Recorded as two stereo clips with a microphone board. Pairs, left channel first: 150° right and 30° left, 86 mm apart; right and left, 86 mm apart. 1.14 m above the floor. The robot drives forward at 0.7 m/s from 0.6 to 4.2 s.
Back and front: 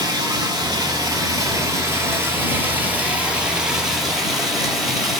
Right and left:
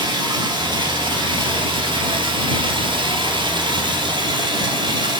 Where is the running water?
65° left, 3 m; by 5.2 s 120° left, 3 m.